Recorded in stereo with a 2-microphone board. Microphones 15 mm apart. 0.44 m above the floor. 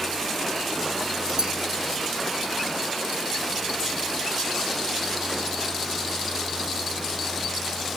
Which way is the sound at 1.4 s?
40° right (ahead or behind).